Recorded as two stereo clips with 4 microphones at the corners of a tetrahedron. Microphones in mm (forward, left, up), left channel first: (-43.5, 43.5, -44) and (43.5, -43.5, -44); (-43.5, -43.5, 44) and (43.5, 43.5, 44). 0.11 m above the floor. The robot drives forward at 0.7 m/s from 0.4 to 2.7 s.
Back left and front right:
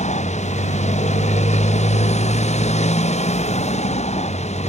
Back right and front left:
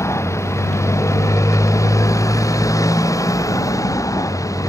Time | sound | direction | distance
0.0 | a motorcycle | 160° left | ?